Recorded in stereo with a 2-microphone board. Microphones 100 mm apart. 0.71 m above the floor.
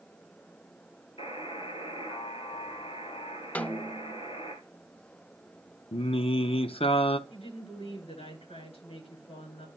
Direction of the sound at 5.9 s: 70° left (ahead or behind).